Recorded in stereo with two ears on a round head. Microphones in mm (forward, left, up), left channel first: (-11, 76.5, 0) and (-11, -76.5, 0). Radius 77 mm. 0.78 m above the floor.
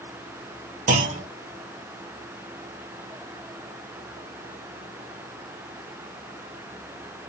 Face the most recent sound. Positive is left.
turn(degrees=-45)  # may be behind; listen again after turning